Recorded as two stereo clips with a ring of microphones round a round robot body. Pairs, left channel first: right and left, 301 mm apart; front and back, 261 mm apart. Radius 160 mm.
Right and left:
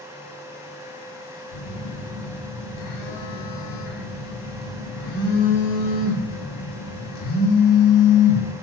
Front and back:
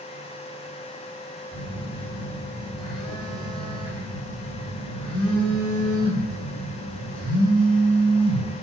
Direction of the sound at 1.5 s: 85° right.